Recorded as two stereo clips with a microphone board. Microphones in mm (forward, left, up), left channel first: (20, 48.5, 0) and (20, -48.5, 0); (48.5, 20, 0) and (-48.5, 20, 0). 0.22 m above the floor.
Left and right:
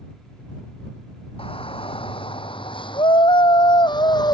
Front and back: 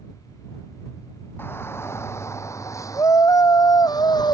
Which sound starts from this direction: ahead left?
A shout, at 1.4 s.